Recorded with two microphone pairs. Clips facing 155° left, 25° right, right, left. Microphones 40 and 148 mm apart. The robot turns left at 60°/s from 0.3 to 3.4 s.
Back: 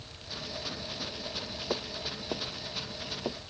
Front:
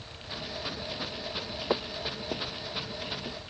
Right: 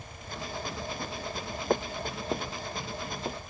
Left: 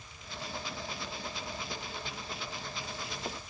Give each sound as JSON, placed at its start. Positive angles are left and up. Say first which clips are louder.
{"t": 1.7, "sound": "footsteps", "louder": "front 5 dB, right 12 dB", "azimuth_deg": -90}